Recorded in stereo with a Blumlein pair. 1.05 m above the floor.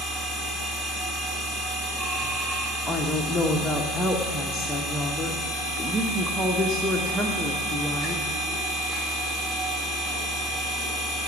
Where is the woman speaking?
5° left, 1.1 m.